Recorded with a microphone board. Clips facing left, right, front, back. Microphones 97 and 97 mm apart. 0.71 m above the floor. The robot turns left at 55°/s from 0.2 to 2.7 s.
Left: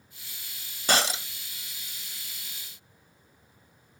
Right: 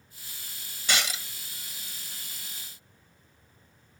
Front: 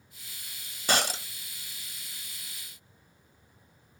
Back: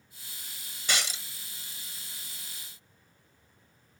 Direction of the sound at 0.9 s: 45° left.